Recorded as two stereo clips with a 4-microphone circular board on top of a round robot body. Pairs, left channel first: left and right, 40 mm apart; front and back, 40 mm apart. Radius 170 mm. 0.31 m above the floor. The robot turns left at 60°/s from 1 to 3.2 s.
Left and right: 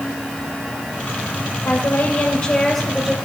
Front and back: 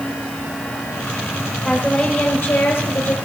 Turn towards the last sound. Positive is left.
turn(degrees=-10)